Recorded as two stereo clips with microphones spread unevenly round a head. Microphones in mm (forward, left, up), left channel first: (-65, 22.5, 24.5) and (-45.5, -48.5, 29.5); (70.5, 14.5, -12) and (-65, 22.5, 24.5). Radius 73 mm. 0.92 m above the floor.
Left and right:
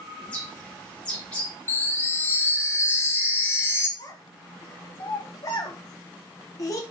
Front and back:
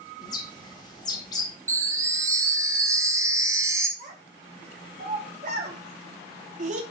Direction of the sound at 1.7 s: 150° left.